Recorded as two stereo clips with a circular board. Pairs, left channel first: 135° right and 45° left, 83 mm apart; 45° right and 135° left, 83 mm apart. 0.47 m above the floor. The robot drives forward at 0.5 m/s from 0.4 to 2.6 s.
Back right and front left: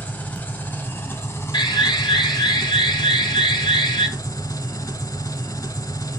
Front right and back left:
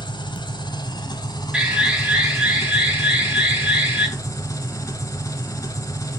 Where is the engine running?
65° right, 2.5 m; by 6.2 s 95° right, 2 m.